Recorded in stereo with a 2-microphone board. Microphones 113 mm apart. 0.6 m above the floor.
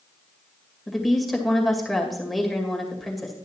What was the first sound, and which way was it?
A woman speaking, centre (ahead or behind).